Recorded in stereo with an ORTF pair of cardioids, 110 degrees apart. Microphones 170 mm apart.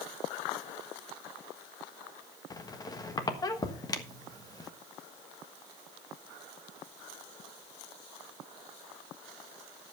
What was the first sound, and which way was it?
A squeak, 25° left.